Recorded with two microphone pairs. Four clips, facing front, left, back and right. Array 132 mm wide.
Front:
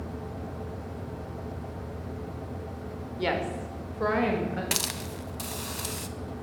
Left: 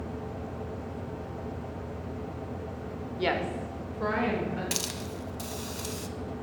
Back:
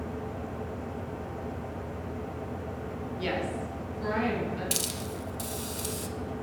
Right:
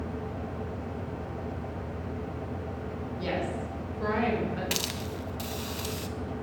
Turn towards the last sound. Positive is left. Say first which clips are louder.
# right 1 dB, even
turn(degrees=-10)